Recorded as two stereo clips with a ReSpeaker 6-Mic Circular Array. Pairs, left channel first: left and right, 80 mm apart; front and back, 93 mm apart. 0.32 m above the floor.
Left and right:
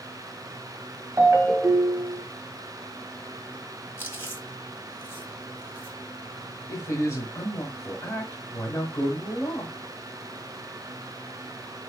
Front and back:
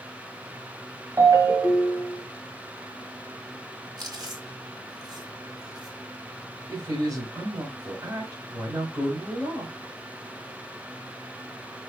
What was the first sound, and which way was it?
A ringtone, 140° right.